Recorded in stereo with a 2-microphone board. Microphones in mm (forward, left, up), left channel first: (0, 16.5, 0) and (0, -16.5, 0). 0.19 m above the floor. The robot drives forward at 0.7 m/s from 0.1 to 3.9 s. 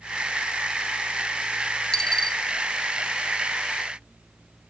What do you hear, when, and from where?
1.9 s a dropped coin: 20° left (ahead or behind), 0.7 m; by 2.4 s 15° left (ahead or behind), 1.0 m